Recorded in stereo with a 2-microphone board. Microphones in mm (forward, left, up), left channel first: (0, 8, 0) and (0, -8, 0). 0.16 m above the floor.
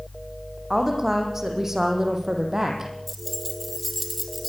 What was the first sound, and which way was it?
A woman speaking, 25° right (ahead or behind).